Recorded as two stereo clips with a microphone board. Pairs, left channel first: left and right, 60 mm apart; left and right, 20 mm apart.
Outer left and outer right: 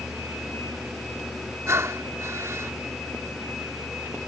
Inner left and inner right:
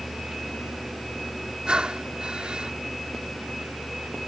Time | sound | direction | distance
1.7 | breathing | 50° right (ahead or behind) | ?